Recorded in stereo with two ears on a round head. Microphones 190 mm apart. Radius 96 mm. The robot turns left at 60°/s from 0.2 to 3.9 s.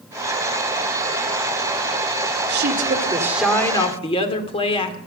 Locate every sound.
2.5 s a woman speaking: 125° right, 2.5 m; by 5.0 s 150° left, 2.5 m